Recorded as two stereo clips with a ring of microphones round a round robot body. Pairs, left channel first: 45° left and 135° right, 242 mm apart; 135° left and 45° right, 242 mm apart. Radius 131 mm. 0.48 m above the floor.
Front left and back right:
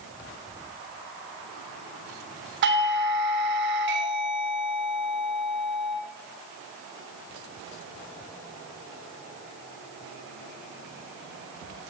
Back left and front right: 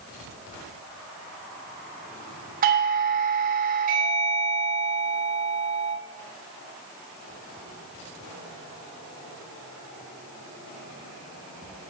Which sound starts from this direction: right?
A doorbell, at 2.6 s.